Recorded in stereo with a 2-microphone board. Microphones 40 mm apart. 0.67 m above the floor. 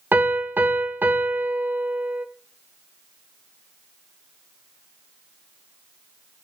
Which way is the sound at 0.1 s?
65° right (ahead or behind).